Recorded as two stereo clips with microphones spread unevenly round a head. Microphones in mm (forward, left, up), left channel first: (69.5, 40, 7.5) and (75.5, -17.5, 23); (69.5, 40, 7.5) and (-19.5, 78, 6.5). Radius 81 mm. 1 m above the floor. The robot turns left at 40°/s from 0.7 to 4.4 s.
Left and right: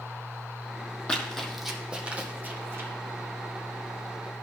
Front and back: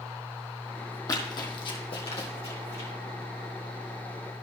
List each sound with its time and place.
1.1 s running footsteps: 15° left, 1.7 m; by 2.9 s 60° right, 2.5 m